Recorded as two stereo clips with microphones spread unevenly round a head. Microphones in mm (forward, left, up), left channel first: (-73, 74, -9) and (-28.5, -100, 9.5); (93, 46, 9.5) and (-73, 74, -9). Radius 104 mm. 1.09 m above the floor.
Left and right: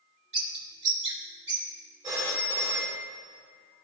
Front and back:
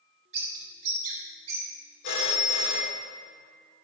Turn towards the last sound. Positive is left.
turn(degrees=-5)